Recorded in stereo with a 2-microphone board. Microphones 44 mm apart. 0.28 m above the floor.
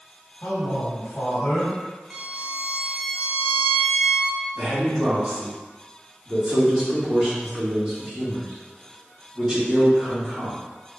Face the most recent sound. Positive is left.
turn(degrees=-15)  # may be behind; listen again after turning